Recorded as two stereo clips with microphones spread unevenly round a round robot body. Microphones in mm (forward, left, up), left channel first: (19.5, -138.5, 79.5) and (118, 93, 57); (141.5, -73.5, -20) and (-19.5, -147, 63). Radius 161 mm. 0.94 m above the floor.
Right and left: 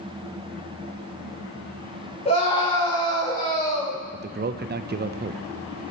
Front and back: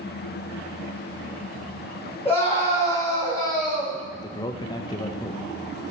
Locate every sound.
2.2 s a scream: 45° right, 5 m; by 4.0 s 35° right, 5 m
4.1 s a man speaking: 40° left, 0.5 m